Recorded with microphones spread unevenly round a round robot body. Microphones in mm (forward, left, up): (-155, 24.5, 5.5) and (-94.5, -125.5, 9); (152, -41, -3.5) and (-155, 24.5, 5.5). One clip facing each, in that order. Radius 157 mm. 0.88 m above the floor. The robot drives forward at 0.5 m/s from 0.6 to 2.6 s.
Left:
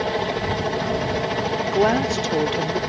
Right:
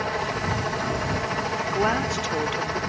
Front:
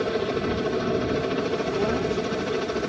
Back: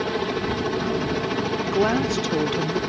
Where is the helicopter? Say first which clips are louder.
Left 5 dB, even; 105° left; by 2.9 s 110° left.